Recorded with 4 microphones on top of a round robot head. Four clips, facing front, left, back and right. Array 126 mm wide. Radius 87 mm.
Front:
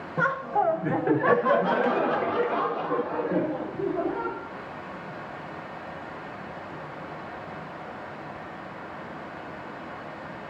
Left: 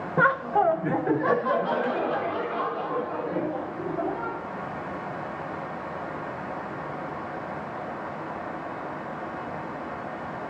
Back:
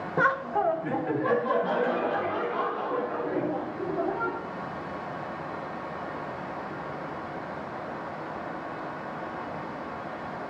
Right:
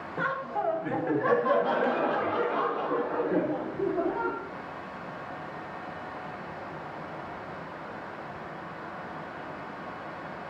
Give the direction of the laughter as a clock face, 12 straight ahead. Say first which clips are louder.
Left 9 dB, even; 8 o'clock.